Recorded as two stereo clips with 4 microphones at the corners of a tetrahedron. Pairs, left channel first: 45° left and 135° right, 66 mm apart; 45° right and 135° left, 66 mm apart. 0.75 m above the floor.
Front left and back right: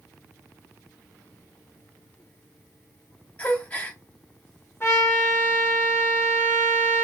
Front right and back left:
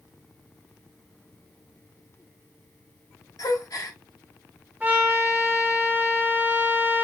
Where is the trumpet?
80° left, 1.4 m.